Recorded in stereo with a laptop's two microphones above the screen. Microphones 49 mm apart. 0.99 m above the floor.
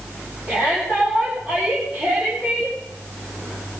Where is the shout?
20° right (ahead or behind), 5.5 m.